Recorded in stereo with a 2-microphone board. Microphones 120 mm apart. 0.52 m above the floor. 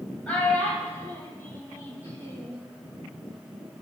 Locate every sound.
0.3 s a child speaking: 10° left (ahead or behind), 2.5 m; by 2.6 s 25° left (ahead or behind), 3.5 m